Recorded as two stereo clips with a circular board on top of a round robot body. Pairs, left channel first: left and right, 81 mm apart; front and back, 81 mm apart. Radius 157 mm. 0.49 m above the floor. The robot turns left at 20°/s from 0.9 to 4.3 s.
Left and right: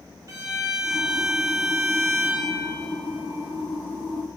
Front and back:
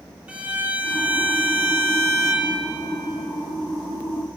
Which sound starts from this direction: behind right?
A violin, at 0.3 s.